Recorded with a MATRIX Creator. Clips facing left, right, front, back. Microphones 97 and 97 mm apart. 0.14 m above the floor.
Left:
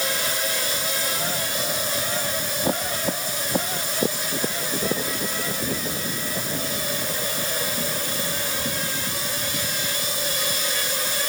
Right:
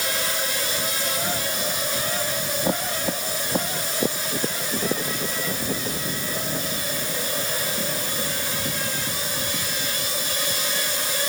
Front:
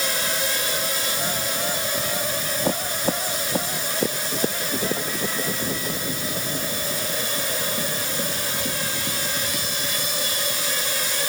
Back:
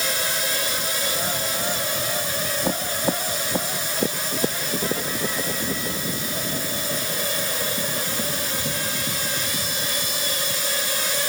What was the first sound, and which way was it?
Only background noise.